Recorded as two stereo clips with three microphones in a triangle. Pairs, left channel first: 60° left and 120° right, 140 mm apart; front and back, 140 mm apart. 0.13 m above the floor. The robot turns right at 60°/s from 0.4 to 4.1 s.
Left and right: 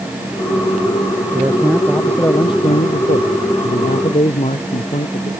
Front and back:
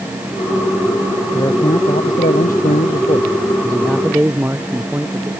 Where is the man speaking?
65° right; by 5.3 s 100° left.